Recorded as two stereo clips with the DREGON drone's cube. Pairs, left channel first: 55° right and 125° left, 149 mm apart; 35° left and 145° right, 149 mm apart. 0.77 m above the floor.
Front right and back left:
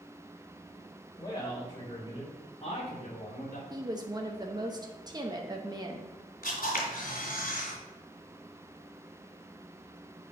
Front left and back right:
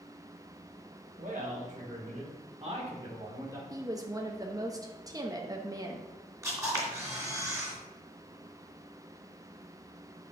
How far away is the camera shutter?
About 2.5 m.